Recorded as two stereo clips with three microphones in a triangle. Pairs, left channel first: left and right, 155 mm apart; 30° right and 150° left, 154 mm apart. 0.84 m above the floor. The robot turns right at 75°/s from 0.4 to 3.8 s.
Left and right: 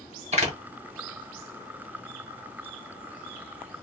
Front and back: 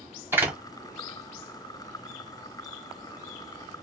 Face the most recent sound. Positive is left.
turn(degrees=120)